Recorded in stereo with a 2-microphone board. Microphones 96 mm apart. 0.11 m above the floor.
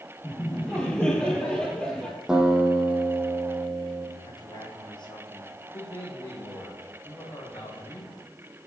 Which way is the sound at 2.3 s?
10° right (ahead or behind).